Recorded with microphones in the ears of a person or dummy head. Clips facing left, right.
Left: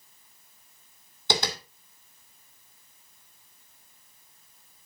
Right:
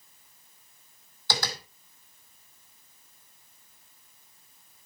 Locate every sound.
1.3 s tapping: 20° left (ahead or behind), 2 m